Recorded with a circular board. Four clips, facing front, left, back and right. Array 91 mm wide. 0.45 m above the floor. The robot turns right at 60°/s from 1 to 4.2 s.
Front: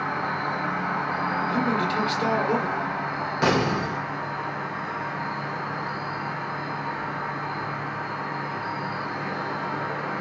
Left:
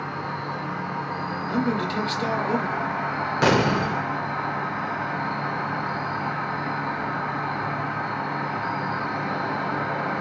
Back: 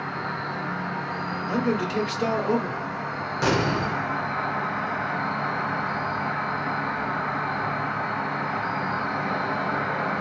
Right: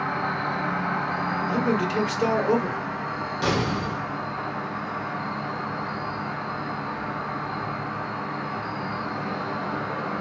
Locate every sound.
0.0 s an insect: 50° right, 1.0 m; by 10.2 s 145° left, 1.0 m
1.5 s a man speaking: 155° right, 1.1 m; by 2.8 s 70° right, 1.1 m
3.4 s an explosion: 75° left, 0.7 m; by 4.0 s 110° left, 0.7 m